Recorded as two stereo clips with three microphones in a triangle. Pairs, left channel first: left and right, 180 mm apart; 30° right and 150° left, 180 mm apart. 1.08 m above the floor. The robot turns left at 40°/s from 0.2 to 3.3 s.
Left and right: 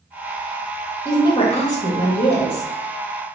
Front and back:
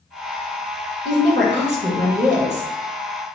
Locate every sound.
1.1 s a woman speaking: 160° left, 0.9 m; by 2.7 s 95° left, 0.9 m